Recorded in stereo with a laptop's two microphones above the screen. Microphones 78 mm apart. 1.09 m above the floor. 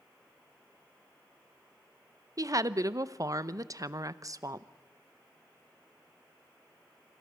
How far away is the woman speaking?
About 0.8 m.